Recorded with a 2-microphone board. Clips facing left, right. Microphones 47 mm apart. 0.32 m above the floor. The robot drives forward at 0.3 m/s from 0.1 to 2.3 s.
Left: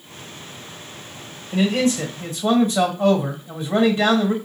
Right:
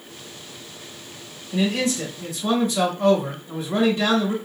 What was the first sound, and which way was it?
A man speaking, 40° left (ahead or behind).